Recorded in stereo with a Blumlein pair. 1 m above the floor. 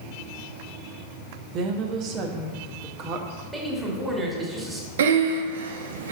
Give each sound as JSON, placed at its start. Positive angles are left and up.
{"t": 1.5, "sound": "a woman speaking", "azimuth_deg": -35, "distance_m": 0.9}
{"t": 3.5, "sound": "a man speaking", "azimuth_deg": -10, "distance_m": 1.8}
{"t": 5.0, "sound": "breathing", "azimuth_deg": -60, "distance_m": 0.7}